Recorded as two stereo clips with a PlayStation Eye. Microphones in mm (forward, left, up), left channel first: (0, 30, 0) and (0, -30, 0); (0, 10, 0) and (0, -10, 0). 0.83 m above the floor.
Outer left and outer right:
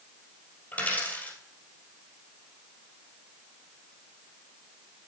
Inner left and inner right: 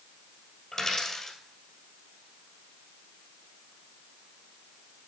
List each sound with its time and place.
0.7 s a dropped coin: 30° left (ahead or behind), 2.5 m